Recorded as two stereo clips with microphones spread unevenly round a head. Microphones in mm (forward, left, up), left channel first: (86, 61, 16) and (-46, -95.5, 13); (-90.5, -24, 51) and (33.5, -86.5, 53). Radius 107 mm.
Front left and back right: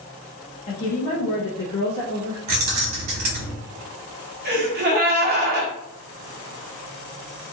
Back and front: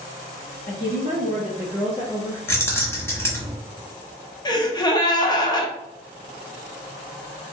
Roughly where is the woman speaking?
Left.